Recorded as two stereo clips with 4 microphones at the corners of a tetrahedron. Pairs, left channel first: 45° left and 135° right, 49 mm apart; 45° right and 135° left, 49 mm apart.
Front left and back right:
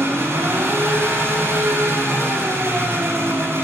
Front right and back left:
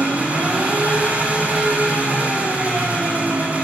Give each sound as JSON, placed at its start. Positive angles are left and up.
{"t": 0.0, "sound": "an engine running", "azimuth_deg": -165, "distance_m": 8.5}